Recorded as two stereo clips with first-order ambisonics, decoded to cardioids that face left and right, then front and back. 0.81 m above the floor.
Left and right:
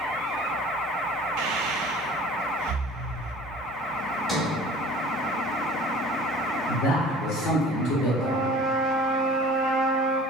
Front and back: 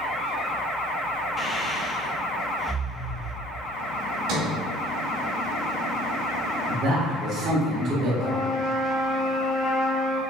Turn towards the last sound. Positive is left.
turn(degrees=-55)